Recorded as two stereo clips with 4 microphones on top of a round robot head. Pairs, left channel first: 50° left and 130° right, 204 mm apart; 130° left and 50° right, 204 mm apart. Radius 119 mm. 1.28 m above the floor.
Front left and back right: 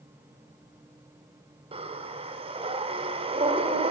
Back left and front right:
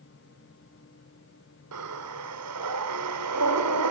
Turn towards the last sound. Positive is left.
turn(degrees=-65)